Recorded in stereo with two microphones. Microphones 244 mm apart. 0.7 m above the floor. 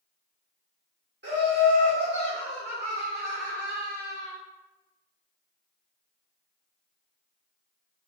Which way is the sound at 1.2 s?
45° right (ahead or behind).